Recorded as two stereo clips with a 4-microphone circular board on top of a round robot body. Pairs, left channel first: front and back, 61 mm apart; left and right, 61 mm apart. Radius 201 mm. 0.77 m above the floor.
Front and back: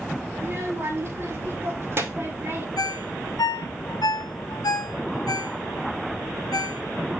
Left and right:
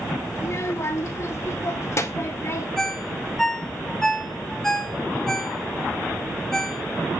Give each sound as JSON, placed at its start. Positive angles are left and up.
{"t": 0.3, "sound": "a child speaking", "azimuth_deg": 130, "distance_m": 2.5}
{"t": 2.8, "sound": "a ringtone", "azimuth_deg": 5, "distance_m": 1.0}